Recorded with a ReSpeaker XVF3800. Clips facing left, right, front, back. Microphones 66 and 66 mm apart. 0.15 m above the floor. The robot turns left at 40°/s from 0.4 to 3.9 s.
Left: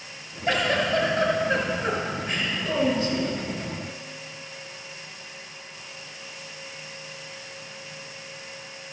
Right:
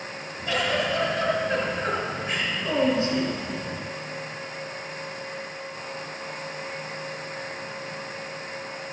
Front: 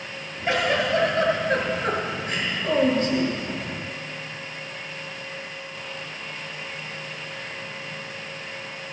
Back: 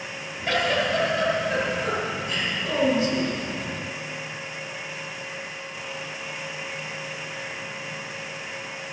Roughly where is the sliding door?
No sliding door in this recording.